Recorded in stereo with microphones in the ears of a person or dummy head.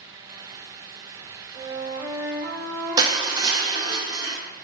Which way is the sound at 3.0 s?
20° right (ahead or behind).